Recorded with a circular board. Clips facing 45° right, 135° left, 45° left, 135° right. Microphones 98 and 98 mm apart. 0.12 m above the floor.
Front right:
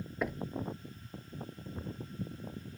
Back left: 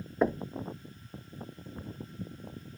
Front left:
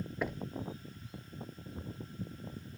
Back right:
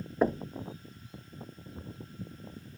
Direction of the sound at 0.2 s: 175° right.